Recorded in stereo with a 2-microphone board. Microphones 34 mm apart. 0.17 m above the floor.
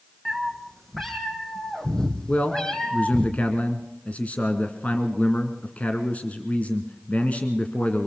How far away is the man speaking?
About 1.9 m.